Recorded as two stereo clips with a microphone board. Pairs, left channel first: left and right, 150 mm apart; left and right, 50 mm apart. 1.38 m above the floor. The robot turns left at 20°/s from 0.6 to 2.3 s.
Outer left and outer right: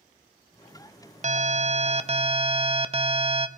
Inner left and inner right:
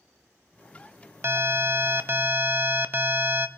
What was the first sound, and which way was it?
An alarm, 50° right (ahead or behind).